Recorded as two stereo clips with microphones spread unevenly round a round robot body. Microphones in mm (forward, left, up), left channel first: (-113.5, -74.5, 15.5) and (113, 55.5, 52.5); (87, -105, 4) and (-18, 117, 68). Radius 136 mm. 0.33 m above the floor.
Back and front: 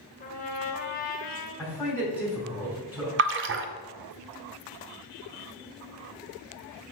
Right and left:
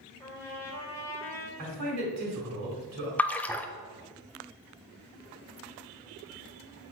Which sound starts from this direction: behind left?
A man speaking, at 1.6 s.